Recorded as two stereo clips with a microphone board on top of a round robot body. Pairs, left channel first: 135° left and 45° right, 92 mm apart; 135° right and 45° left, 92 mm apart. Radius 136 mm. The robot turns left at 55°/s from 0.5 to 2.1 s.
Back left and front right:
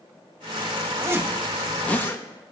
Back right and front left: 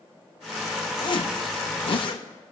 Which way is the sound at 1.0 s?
100° right.